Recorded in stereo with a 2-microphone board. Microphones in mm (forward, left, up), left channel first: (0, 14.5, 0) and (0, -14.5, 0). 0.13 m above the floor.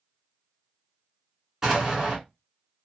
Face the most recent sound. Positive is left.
turn(degrees=-20)  # may be behind; listen again after turning